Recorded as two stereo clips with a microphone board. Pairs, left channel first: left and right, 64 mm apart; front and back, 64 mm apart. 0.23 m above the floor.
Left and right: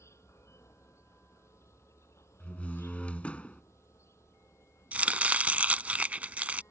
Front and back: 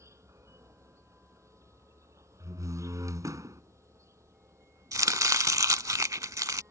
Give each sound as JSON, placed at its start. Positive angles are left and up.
{"t": 0.0, "sound": "an insect", "azimuth_deg": 140}
{"t": 2.4, "sound": "a door slam", "azimuth_deg": 160}
{"t": 4.9, "sound": "chopping", "azimuth_deg": -155}